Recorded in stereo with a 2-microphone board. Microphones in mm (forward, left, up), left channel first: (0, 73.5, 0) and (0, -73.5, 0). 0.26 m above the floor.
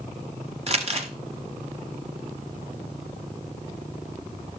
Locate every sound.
0.7 s crumpling: 45° right (ahead or behind), 1.0 m